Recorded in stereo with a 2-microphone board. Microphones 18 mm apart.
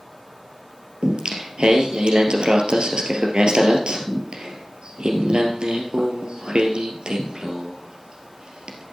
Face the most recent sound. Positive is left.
turn(degrees=-70)  # may be behind; listen again after turning